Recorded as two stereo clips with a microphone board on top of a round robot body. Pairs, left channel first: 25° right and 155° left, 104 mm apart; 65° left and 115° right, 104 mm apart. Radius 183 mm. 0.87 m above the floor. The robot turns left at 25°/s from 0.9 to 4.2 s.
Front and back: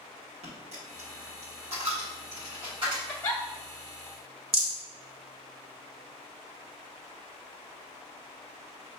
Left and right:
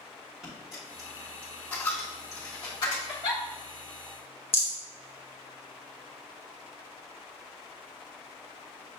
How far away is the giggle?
About 0.5 m.